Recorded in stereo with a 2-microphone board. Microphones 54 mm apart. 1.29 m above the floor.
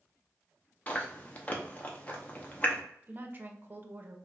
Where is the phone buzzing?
No phone buzzing in this recording.